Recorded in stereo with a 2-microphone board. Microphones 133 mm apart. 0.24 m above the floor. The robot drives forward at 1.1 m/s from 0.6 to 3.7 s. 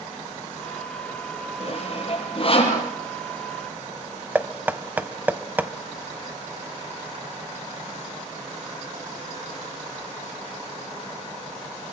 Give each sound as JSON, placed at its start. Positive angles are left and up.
{"t": 1.6, "sound": "sawing", "side_deg": 45, "distance_m": 7.0}
{"t": 4.3, "sound": "knocking", "side_deg": -15, "distance_m": 0.9}